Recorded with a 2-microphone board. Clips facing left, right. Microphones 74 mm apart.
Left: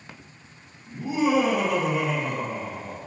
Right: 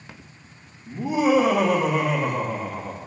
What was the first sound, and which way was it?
Laughter, 75° right (ahead or behind).